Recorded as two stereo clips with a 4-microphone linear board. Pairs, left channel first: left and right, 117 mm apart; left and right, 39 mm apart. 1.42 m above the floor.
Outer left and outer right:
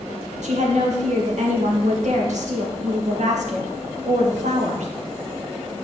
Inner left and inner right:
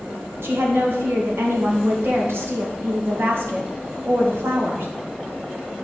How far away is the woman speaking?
About 1.9 m.